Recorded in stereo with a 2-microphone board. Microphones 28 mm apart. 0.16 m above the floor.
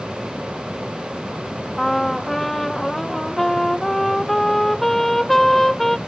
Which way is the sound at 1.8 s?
5° left (ahead or behind).